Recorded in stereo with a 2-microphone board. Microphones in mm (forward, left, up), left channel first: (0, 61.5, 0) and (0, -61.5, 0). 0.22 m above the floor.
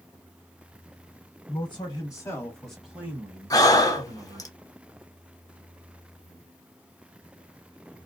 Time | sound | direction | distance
1.5 | a man speaking | 40° left (ahead or behind) | 1.4 m
3.5 | breathing | 30° left (ahead or behind) | 0.8 m